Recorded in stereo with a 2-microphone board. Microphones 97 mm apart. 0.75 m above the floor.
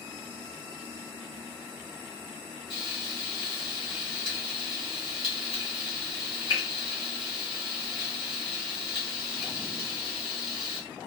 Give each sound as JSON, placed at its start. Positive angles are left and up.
{"t": 2.7, "sound": "frying", "side_deg": 50, "distance_m": 2.0}